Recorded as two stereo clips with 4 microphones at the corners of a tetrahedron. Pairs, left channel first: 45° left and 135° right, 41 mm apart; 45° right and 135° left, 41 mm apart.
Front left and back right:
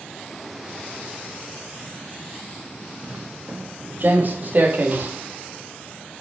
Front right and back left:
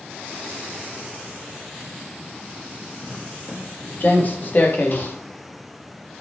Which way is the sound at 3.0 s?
95° right.